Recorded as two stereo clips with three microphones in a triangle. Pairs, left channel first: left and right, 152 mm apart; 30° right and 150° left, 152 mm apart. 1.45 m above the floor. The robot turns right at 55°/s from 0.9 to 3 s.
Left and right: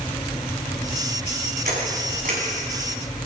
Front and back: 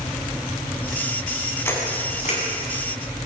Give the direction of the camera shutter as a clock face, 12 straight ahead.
3 o'clock.